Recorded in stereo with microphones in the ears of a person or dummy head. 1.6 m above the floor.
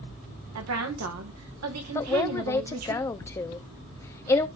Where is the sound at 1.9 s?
15° left (ahead or behind), 0.8 m.